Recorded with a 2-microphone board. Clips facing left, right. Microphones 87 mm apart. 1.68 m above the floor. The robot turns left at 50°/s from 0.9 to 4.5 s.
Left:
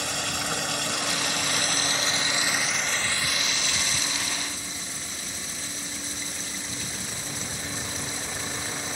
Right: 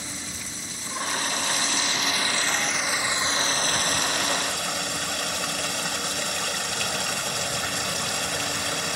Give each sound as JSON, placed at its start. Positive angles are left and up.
{"t": 0.0, "sound": "running water", "azimuth_deg": 90}